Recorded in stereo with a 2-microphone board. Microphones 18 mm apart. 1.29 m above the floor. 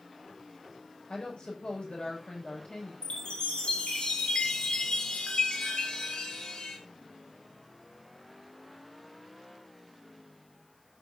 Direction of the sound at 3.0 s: 85° left.